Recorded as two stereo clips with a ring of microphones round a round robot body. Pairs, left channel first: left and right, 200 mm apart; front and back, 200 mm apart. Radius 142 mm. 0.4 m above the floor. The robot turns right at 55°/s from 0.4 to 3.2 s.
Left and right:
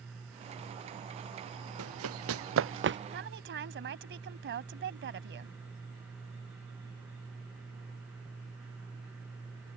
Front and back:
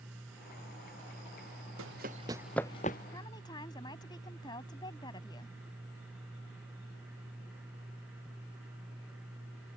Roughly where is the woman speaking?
Right.